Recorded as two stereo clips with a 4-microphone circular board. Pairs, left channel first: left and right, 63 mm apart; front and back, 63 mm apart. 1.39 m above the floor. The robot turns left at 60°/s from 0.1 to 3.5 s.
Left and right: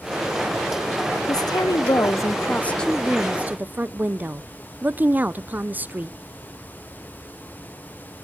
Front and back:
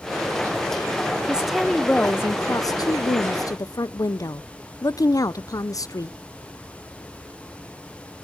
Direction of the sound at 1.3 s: 105° left.